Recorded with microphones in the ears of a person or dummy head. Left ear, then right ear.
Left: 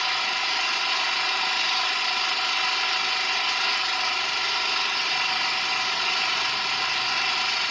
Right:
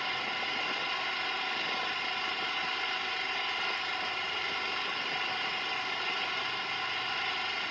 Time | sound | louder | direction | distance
0.0 | an engine running | left 9 dB | 35° left (ahead or behind) | ?